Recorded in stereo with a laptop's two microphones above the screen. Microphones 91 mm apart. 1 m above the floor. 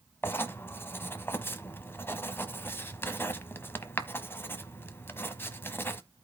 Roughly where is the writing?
Left.